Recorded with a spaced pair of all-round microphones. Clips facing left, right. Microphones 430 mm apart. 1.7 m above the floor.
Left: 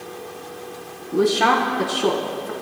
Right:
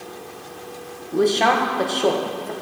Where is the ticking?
I don't hear ticking.